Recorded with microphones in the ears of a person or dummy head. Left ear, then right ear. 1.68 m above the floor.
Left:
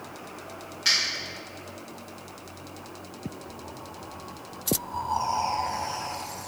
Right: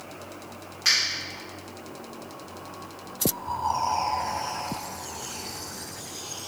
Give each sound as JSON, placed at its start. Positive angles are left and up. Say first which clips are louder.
{"t": 0.8, "sound": "a finger snap", "louder": "right 1 dB", "side_deg": -20, "distance_m": 1.6}